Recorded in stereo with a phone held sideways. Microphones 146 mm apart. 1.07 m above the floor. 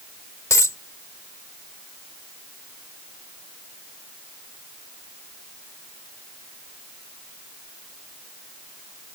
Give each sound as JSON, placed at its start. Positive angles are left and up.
{"t": 0.5, "sound": "a dropped coin", "side_deg": 20}